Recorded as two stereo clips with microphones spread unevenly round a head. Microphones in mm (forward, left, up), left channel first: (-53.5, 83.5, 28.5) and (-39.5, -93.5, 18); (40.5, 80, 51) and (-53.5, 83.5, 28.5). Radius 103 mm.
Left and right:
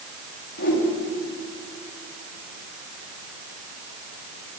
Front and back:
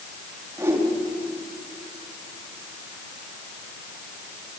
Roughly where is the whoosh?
Behind left.